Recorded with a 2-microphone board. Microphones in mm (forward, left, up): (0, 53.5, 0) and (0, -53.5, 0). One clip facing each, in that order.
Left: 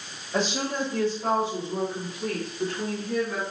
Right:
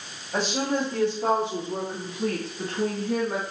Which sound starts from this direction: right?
A woman speaking, at 0.3 s.